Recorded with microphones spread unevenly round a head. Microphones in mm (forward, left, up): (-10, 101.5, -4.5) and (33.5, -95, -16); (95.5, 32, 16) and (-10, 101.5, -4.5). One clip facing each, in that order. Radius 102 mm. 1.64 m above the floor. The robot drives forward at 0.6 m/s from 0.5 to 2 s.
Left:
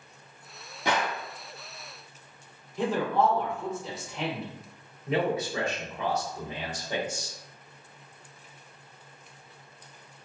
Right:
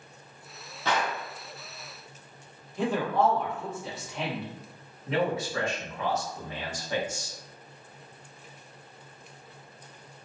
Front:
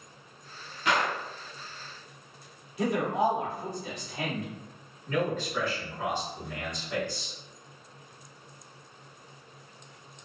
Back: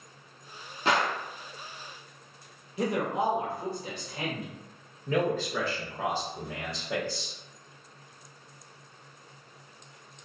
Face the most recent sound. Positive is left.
turn(degrees=180)